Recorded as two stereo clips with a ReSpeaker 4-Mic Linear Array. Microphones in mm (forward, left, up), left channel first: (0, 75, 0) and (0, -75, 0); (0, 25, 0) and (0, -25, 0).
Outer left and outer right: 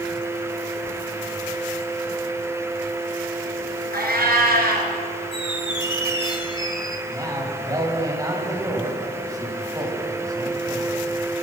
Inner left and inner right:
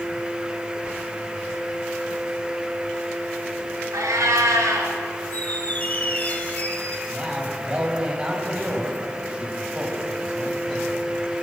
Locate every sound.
3.9 s a cat meowing: 90° right, 2.5 m
5.3 s a squeak: 30° left (ahead or behind), 1.7 m
7.1 s a man speaking: 25° right (ahead or behind), 3.5 m